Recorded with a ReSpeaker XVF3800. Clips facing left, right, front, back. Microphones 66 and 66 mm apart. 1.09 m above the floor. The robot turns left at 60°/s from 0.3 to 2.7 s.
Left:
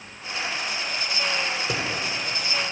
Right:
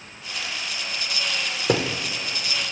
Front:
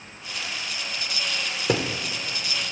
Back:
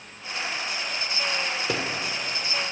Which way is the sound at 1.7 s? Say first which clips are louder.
Right 5 dB, front 8 dB; 60° right.